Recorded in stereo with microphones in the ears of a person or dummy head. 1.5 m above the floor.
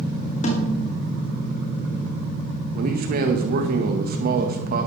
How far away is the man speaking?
About 1.8 m.